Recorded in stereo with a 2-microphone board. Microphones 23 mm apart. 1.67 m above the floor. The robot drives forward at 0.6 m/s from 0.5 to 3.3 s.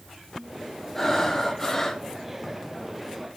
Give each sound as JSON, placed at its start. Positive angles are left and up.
{"t": 0.9, "sound": "breathing", "side_deg": 10, "distance_m": 1.4}